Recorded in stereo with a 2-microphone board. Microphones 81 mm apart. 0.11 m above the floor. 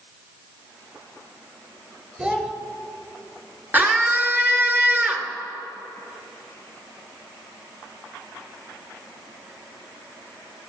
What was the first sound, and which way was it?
A child speaking, 15° right (ahead or behind).